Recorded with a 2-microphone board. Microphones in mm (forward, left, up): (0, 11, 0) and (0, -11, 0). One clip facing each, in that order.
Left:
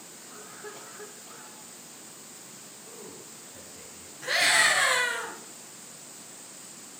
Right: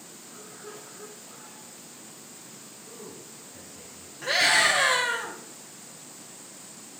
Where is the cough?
40° left (ahead or behind), 1.5 m.